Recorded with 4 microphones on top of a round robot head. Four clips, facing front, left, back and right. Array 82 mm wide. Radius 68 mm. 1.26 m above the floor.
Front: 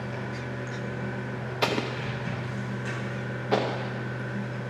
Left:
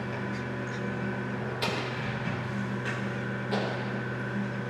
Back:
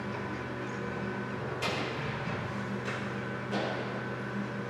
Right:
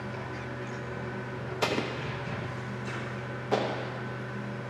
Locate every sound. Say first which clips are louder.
0.0 s running water: left 3 dB, front 2 dB; 70° left, 3 m
1.6 s an explosion: right 5 dB, front 8 dB; 25° right, 0.8 m